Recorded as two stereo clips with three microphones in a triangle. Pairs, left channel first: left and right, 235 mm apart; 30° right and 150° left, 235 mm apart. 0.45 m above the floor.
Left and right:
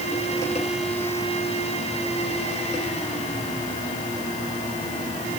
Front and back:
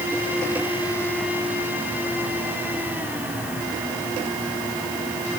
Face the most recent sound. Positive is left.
No sound to turn to.